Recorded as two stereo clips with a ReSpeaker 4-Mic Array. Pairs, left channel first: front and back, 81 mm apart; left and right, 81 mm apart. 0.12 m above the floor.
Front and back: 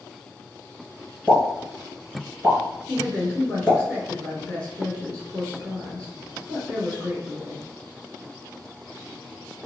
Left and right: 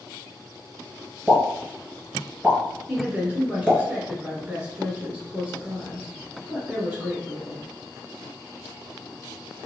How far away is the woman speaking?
About 1.3 m.